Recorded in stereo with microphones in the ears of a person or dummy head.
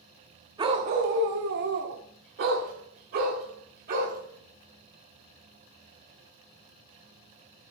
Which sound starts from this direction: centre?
A dog barking, at 0.6 s.